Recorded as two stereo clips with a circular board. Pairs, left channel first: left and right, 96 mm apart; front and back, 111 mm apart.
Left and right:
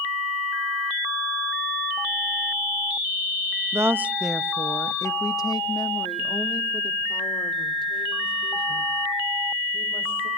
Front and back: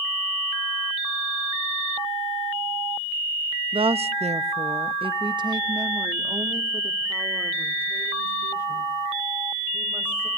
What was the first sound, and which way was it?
A woman speaking, 150° right.